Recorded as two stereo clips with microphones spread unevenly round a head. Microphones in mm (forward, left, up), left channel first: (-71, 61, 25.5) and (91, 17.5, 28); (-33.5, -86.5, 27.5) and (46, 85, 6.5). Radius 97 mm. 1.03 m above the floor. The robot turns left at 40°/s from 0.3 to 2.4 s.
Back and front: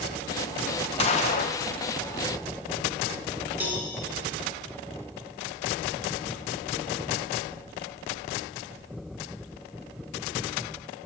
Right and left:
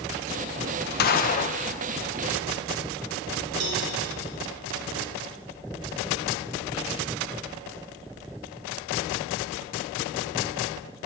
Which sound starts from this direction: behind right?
A gunshot, at 1.0 s.